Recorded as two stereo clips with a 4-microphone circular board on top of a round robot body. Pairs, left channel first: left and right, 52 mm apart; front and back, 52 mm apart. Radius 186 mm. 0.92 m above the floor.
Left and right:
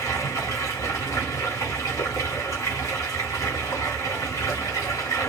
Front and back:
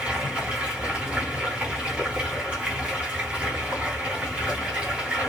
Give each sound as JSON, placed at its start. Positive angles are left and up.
{"t": 0.0, "sound": "running water", "azimuth_deg": 110, "distance_m": 1.1}